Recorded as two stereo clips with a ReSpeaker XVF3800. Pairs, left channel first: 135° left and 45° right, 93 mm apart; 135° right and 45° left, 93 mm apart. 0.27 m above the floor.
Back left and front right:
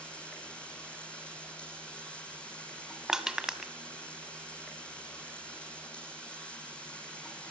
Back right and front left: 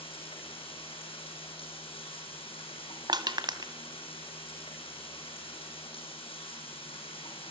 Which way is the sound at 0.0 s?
145° right.